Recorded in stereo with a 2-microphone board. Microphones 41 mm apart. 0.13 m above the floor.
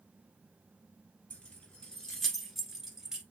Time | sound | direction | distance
1.3 | keys jangling | 30° left (ahead or behind) | 1.4 m